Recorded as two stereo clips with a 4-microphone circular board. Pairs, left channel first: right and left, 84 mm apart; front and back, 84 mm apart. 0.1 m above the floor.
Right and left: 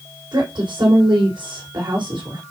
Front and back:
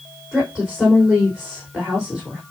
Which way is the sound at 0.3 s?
100° left.